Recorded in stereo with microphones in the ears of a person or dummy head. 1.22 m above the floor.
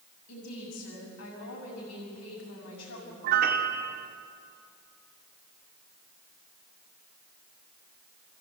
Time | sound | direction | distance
0.3 | a woman speaking | 75° left (ahead or behind) | 6 m
3.2 | a piano | 55° right (ahead or behind) | 1.5 m